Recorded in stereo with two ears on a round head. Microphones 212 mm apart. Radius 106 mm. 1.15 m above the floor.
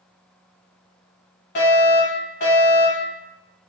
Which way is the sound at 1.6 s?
45° left (ahead or behind).